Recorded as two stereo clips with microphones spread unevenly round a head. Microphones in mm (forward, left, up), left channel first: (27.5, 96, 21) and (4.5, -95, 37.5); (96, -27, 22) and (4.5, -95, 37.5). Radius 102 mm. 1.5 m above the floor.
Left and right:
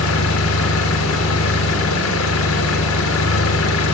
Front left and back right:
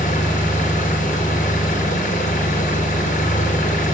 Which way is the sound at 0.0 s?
75° left.